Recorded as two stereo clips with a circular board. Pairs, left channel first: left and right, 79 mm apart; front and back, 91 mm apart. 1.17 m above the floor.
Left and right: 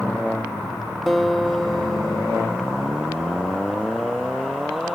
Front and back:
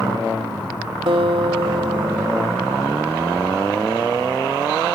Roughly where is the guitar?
Behind.